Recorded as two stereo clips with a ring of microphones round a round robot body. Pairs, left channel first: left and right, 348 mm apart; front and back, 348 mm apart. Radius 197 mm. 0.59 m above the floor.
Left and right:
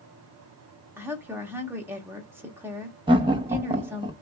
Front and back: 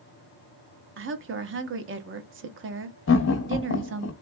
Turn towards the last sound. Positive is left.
turn(degrees=-20)